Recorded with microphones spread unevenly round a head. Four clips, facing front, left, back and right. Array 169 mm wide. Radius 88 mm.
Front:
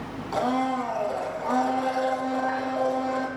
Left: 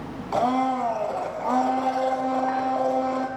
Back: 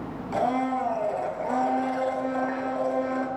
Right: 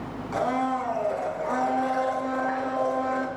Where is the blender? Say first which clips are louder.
Left 3 dB, even; 100° left, 4 m.